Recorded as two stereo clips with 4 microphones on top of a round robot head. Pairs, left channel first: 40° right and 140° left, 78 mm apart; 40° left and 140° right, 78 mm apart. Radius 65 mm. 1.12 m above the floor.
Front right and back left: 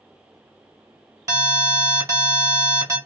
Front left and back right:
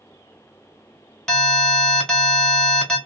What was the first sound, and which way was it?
An alarm, 125° left.